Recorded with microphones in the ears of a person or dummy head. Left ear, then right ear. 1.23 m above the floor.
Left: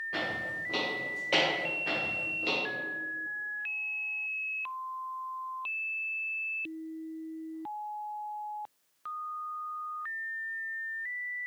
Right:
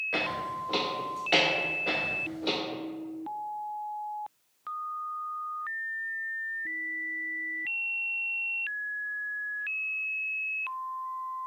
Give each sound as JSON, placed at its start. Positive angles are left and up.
{"t": 0.1, "sound": "footsteps", "side_deg": -35, "distance_m": 1.5}